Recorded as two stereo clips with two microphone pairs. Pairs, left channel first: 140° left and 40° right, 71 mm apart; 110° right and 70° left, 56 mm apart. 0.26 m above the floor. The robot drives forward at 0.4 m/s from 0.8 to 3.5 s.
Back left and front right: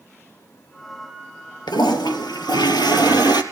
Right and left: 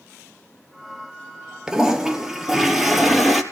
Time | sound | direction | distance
1.7 | a toilet flushing | 145° left | 2 m